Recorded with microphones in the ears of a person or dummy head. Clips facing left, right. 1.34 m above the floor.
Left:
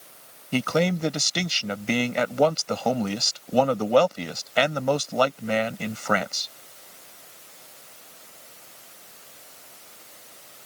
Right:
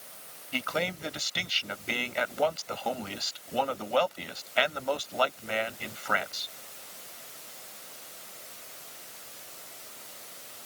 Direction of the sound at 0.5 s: 55° left (ahead or behind).